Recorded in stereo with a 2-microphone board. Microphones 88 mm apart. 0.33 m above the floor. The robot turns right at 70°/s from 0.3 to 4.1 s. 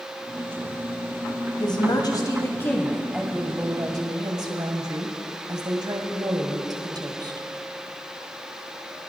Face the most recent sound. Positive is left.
turn(degrees=-105)